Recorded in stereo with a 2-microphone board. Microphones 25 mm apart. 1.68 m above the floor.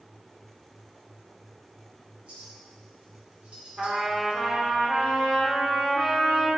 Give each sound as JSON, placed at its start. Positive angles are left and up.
{"t": 2.3, "sound": "a clink", "side_deg": -60, "distance_m": 2.5}
{"t": 3.8, "sound": "a trumpet", "side_deg": -40, "distance_m": 2.5}